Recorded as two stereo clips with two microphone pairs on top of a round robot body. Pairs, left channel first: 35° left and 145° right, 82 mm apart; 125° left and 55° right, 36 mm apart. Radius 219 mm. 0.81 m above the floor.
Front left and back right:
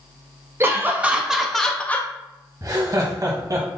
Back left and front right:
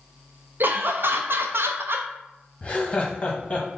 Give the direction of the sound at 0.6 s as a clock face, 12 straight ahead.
3 o'clock.